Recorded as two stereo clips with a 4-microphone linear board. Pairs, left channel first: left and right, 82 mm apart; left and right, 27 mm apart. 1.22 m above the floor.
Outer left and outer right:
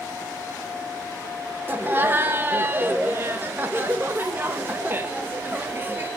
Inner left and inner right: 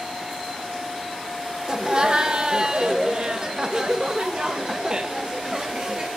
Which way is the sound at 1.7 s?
25° right (ahead or behind).